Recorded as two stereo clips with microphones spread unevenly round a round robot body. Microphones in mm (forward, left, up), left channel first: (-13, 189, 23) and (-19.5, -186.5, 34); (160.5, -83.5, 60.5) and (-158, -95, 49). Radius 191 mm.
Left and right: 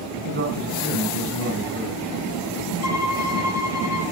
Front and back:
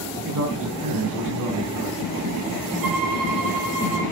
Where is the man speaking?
150° right, 4.5 m.